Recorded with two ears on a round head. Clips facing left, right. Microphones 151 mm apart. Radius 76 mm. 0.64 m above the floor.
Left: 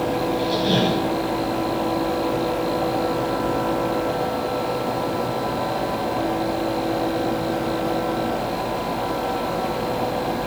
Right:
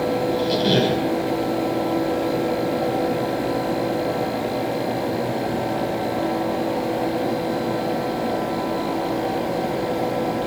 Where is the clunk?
No clunk in this recording.